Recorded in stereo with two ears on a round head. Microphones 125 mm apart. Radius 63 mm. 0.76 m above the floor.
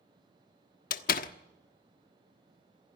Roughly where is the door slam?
Left.